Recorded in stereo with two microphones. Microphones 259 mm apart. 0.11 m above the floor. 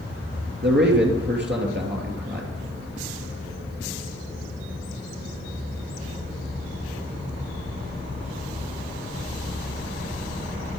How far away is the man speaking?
About 2.5 m.